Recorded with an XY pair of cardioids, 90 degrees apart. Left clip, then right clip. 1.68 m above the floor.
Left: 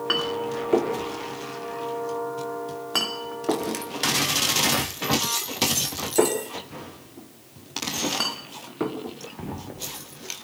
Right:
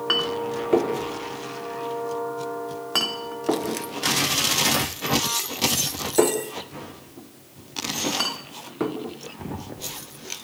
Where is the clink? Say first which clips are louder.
Right 2 dB; 5° right, 3 m.